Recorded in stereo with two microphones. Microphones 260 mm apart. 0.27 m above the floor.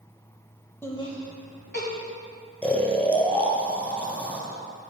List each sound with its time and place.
0.8 s laughter: 10° left (ahead or behind), 0.9 m; by 1.9 s 40° left (ahead or behind), 1.4 m
2.6 s snoring: 5° left (ahead or behind), 1.2 m